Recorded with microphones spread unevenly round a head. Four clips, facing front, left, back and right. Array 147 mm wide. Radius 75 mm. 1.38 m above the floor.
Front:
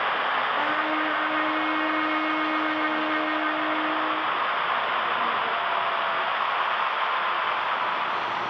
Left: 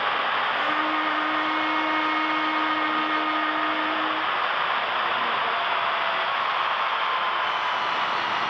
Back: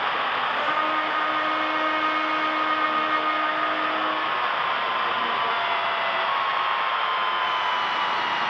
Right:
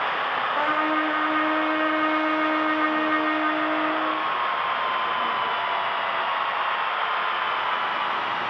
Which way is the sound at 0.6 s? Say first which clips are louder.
Right 2 dB, back 1 dB; 100° right.